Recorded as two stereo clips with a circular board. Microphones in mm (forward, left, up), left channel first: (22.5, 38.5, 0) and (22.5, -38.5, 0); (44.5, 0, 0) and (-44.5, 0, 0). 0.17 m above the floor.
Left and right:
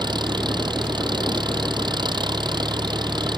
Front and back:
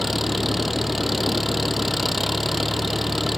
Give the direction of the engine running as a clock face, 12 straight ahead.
3 o'clock.